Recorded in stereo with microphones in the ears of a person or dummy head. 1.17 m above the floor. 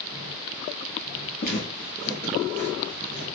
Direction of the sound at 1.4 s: 30° left (ahead or behind).